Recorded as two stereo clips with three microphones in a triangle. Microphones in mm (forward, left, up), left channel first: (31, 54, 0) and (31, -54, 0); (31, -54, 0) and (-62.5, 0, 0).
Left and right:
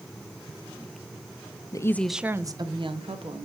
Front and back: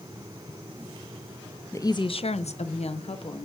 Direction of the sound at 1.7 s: 35° left.